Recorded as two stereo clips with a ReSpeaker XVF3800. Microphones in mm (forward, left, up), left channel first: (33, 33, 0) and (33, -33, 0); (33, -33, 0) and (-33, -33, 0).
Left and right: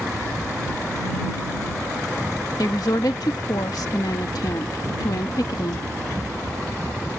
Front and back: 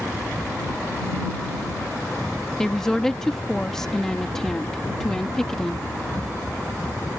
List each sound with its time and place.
2.6 s a woman speaking: 85° left